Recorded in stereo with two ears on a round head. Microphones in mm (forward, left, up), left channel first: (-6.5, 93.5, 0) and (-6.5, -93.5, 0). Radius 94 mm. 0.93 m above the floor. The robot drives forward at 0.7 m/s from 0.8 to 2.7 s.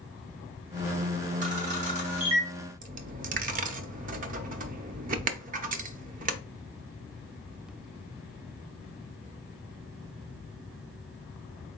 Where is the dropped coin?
40° right (ahead or behind), 0.5 m.